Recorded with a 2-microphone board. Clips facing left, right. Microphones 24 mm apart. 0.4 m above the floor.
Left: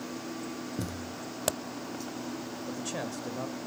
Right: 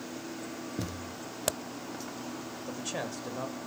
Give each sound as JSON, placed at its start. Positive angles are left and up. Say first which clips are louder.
{"t": 0.8, "sound": "a thud", "louder": "left 1 dB", "side_deg": -10, "distance_m": 1.2}
{"t": 2.7, "sound": "a man speaking", "louder": "even", "side_deg": -15, "distance_m": 1.5}